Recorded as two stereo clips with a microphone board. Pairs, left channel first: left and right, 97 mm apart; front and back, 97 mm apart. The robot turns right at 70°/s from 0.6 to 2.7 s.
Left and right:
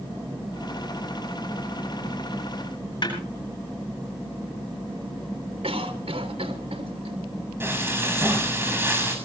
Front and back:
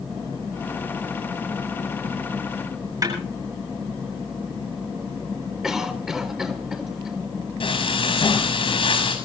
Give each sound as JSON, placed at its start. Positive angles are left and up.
{"t": 3.0, "sound": "a snare drum", "azimuth_deg": 130, "distance_m": 9.0}
{"t": 5.6, "sound": "a cough", "azimuth_deg": -95, "distance_m": 3.5}
{"t": 7.6, "sound": "frying", "azimuth_deg": -25, "distance_m": 6.5}